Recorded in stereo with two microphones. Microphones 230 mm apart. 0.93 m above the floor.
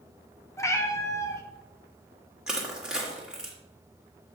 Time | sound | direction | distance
0.6 | a cat meowing | 15° left (ahead or behind) | 0.9 m
2.5 | crushing | 5° right (ahead or behind) | 1.8 m